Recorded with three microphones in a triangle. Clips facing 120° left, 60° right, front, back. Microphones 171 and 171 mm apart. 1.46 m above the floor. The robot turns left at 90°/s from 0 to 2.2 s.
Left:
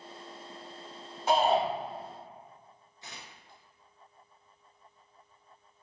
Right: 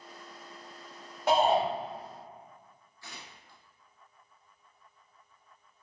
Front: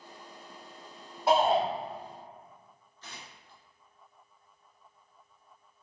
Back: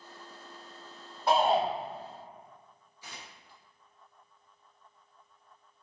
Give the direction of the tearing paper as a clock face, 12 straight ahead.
8 o'clock.